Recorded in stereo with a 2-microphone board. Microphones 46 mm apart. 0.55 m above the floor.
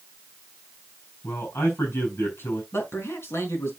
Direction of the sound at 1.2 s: 60° left (ahead or behind).